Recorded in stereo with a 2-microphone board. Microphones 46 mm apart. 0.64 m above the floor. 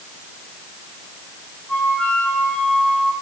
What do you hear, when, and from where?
1.7 s a flute: 25° left (ahead or behind), 10 m